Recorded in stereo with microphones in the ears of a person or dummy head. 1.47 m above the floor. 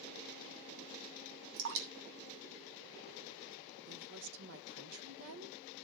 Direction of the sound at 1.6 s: 70° right (ahead or behind).